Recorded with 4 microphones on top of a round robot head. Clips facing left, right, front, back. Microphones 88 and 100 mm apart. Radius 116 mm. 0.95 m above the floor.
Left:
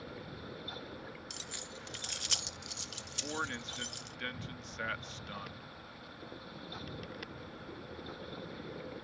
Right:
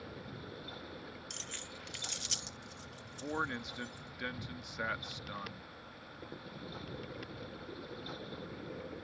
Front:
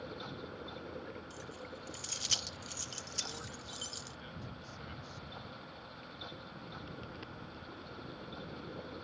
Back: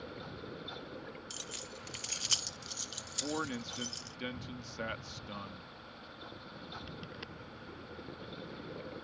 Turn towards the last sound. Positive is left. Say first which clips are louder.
# right 2 dB, back 15 dB
turn(degrees=-165)